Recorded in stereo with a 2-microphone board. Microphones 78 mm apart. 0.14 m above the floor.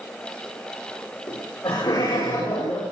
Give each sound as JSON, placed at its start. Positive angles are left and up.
{"t": 1.3, "sound": "laughter", "side_deg": 65, "distance_m": 9.0}